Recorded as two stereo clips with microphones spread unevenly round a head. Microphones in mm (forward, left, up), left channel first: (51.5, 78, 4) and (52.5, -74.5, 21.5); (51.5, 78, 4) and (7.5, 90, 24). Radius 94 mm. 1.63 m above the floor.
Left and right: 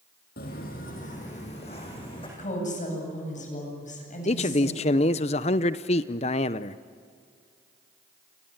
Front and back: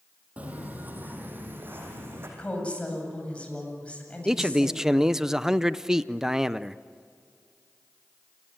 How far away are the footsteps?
About 3.5 m.